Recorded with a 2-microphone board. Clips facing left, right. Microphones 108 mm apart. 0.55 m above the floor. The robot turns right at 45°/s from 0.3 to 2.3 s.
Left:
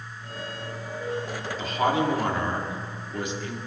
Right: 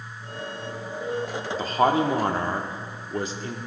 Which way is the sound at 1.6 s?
100° right.